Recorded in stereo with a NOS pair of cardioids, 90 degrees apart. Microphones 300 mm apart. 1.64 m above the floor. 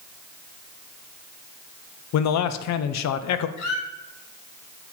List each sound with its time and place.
2.1 s a man speaking: 65° left, 0.6 m
3.6 s a squeak: 65° left, 2.0 m